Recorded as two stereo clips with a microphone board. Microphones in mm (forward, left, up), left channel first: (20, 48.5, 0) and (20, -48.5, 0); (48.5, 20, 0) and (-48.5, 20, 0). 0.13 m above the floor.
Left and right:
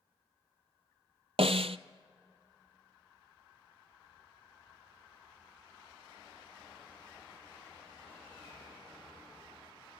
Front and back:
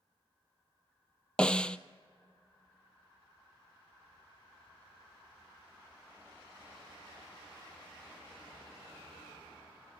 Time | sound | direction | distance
1.4 | a snare drum | 80° right | 0.6 m